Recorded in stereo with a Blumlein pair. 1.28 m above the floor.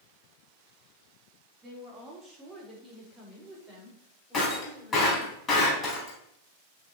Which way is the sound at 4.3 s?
25° left.